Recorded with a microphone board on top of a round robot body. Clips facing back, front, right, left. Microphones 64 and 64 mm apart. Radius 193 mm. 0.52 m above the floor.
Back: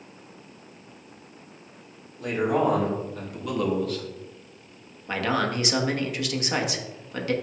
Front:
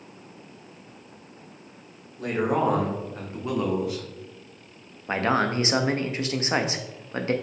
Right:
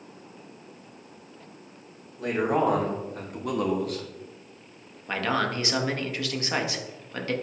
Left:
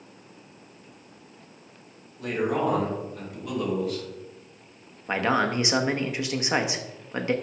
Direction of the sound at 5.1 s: 35° left.